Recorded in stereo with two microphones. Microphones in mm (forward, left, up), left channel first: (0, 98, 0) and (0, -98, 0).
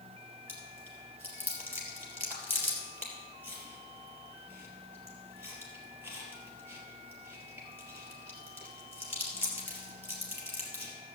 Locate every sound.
0.5 s chewing: 10° right (ahead or behind), 3.5 m